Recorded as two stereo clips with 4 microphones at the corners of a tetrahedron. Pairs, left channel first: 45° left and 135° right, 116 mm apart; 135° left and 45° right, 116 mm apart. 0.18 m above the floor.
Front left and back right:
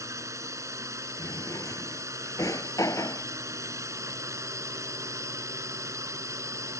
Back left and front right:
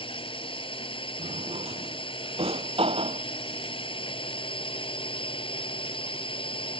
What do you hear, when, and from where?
0.0 s a drone: 165° left
1.2 s a drawer: 15° right